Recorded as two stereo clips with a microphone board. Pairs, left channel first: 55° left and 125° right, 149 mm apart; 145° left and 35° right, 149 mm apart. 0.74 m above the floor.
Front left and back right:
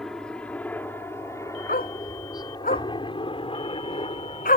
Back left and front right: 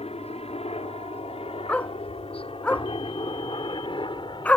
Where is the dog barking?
65° left.